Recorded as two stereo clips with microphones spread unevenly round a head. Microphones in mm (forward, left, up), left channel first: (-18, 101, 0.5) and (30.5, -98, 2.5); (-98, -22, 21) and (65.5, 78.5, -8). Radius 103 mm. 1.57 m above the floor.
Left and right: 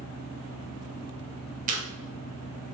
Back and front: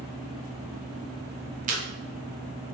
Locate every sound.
0.0 s a fan: 25° right, 3 m
1.7 s chewing: 25° right, 1.8 m